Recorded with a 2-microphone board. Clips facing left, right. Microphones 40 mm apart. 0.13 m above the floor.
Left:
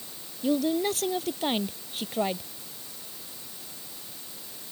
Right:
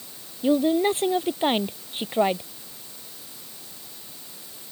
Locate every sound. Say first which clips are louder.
0.4 s a woman speaking: right 5 dB; 25° right (ahead or behind)